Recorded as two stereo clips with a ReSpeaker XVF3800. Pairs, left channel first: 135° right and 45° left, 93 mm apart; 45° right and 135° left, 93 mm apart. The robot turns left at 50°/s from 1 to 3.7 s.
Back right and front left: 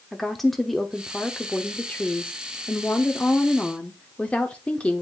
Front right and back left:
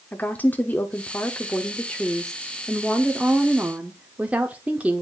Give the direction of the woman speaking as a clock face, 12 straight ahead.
2 o'clock.